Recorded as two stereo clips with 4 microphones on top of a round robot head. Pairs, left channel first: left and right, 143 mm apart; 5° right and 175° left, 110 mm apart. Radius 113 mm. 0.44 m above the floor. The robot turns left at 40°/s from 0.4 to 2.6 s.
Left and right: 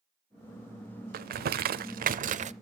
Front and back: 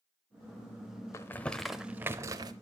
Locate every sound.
1.1 s crumpling: 75° right, 0.6 m; by 2.5 s 130° right, 0.6 m